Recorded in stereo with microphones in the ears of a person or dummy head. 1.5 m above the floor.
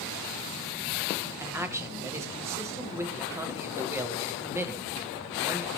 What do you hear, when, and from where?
1.4 s a man speaking: 15° right (ahead or behind), 1.3 m